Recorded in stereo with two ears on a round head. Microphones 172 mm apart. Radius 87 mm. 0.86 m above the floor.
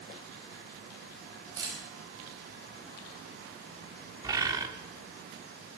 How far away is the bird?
About 1.2 m.